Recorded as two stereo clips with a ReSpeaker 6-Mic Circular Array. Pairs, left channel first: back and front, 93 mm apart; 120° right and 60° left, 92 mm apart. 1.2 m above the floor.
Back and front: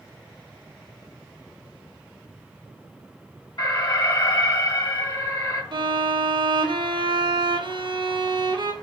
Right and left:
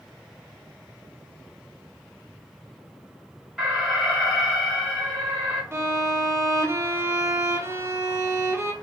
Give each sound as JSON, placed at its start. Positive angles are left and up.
{"t": 3.6, "sound": "an alarm", "azimuth_deg": 145, "distance_m": 2.0}
{"t": 5.7, "sound": "a violin", "azimuth_deg": 5, "distance_m": 0.6}